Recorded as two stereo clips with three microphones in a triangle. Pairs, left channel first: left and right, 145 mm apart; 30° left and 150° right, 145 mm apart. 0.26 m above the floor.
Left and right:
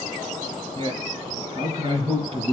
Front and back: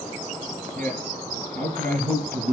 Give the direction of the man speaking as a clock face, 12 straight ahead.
5 o'clock.